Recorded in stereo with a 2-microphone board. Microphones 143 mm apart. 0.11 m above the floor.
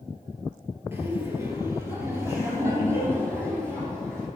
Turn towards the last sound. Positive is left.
turn(degrees=-20)  # may be behind; listen again after turning